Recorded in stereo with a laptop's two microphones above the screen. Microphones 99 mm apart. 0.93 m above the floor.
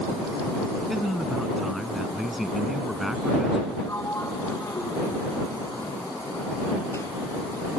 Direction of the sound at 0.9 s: Centre (ahead or behind).